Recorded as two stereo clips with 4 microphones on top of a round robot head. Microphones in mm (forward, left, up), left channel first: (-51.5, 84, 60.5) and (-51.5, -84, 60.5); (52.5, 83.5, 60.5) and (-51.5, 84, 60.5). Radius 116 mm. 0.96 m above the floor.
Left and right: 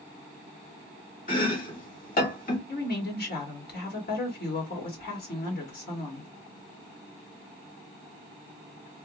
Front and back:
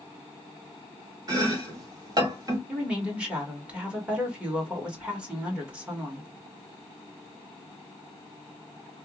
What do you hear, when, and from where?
1.3 s chopping: 125° left, 1.7 m
2.7 s a woman speaking: 100° left, 2.0 m